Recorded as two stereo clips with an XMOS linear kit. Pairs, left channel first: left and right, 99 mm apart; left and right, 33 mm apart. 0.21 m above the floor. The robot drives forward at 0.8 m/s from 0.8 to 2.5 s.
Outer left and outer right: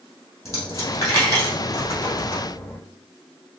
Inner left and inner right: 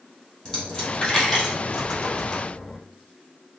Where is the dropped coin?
30° left (ahead or behind), 2 m; by 2.8 s 20° left (ahead or behind), 3.5 m.